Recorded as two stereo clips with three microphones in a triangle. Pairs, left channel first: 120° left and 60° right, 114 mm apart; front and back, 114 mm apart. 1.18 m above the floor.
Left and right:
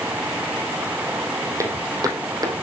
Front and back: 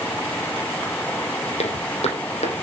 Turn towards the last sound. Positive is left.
turn(degrees=-10)